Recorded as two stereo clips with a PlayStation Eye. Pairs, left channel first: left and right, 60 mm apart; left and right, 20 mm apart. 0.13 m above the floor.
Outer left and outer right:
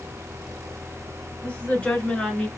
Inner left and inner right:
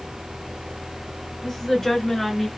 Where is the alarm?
I don't hear an alarm.